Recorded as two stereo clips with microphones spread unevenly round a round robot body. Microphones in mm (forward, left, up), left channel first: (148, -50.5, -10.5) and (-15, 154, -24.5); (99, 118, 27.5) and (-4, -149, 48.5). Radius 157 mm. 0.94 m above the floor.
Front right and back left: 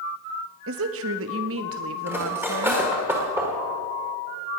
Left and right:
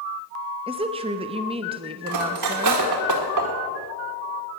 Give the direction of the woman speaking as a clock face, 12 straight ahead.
6 o'clock.